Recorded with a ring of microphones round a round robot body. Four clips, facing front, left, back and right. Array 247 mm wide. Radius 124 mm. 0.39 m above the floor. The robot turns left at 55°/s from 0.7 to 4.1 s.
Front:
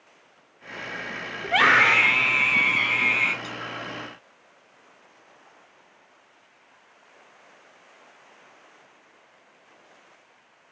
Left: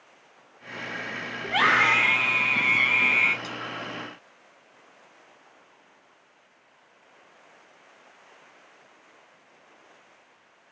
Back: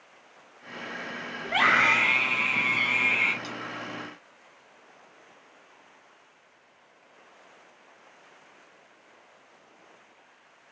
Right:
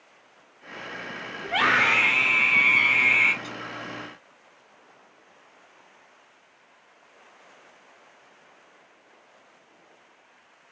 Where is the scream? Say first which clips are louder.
Left 1 dB, front 4 dB; 5° left, 1.5 m; by 3.3 s 100° right, 1.5 m.